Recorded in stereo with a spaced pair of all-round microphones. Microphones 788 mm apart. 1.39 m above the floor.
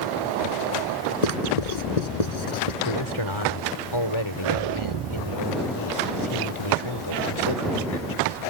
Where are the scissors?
No scissors in this recording.